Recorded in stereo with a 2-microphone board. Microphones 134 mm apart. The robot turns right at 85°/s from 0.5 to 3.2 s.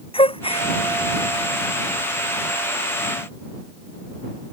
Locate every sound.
0.1 s a gasp: 45° left (ahead or behind); by 0.7 s 60° left (ahead or behind)